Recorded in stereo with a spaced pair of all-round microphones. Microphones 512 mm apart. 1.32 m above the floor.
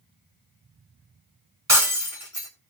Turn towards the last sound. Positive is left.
turn(degrees=-30)  # may be behind; listen again after turning